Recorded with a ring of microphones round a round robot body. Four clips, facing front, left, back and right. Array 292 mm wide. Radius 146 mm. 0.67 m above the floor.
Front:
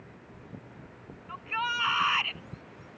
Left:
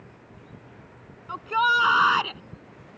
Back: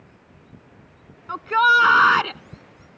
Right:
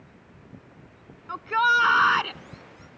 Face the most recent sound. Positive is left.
turn(degrees=180)